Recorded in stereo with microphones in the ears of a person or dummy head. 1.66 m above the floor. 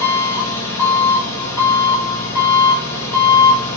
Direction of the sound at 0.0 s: 20° left (ahead or behind).